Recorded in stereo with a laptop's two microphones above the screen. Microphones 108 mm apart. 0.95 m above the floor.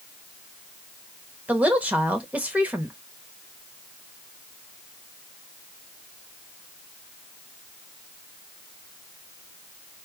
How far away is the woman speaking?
About 1.2 m.